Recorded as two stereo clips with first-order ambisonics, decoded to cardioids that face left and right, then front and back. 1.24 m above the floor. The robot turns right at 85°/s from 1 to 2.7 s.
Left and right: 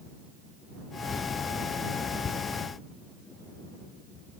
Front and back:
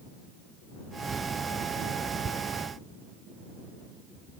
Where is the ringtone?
No ringtone in this recording.